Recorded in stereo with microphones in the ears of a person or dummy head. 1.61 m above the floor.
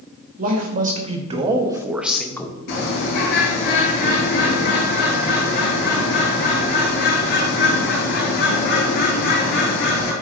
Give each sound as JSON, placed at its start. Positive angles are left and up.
{"t": 0.4, "sound": "a man speaking", "side_deg": -45, "distance_m": 1.5}
{"t": 2.7, "sound": "a bird", "side_deg": 60, "distance_m": 4.0}